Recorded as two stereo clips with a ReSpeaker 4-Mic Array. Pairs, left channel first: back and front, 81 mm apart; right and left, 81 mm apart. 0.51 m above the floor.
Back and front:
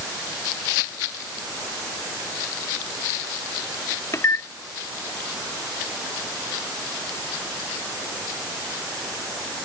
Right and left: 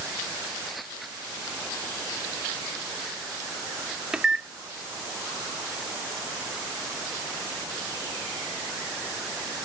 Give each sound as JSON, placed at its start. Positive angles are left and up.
{"t": 4.1, "sound": "a microwave", "azimuth_deg": 160}